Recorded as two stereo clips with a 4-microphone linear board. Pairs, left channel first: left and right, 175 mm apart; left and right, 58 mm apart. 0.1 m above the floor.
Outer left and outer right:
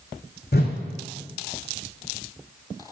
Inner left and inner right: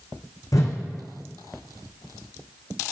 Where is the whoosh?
60° left (ahead or behind), 1.1 m.